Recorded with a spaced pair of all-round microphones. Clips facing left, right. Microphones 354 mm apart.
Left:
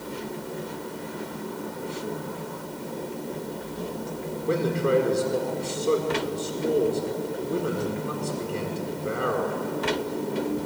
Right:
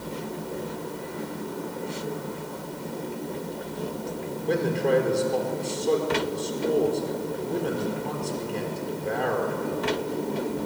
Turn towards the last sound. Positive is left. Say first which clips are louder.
# even
turn(degrees=10)  # may be behind; listen again after turning